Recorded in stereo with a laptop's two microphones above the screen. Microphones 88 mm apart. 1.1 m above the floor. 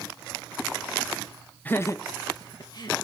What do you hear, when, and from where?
1.6 s laughter: 20° left (ahead or behind), 0.6 m; by 2.9 s 50° left (ahead or behind), 1.7 m